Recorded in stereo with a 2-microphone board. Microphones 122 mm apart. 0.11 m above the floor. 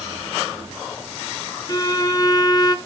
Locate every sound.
1.7 s a violin: 35° left (ahead or behind), 0.9 m